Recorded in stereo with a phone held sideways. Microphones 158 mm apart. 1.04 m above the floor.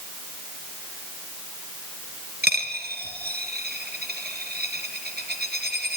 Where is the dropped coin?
80° right, 4 m.